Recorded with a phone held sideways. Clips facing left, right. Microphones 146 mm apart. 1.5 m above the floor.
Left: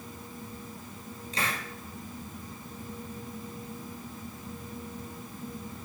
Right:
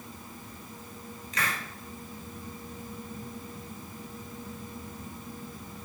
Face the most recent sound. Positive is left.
turn(degrees=30)  # may be behind; listen again after turning